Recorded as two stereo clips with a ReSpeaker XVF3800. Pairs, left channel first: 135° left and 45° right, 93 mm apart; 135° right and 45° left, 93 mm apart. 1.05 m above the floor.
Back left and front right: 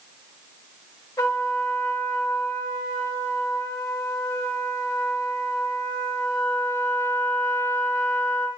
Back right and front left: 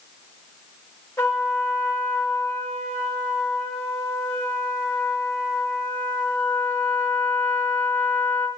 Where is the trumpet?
Straight behind, 1.1 m.